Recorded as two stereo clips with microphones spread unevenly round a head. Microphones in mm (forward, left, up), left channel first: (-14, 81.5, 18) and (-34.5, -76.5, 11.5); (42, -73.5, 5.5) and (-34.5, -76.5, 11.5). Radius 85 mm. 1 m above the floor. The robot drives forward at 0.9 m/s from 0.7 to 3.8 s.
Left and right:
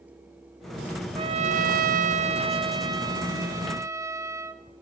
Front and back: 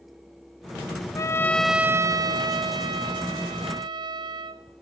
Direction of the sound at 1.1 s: 40° right.